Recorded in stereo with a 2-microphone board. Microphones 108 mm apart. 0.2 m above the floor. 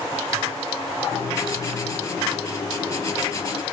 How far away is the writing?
About 3 m.